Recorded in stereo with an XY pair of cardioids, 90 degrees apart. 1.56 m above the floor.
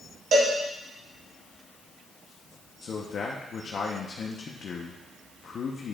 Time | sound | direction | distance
0.3 | a cowbell | 70° right | 2.0 m
2.8 | a man speaking | 60° left | 1.0 m